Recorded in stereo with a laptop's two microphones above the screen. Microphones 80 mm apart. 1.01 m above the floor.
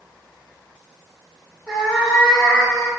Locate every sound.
1.7 s a cat meowing: 5° left (ahead or behind), 1.2 m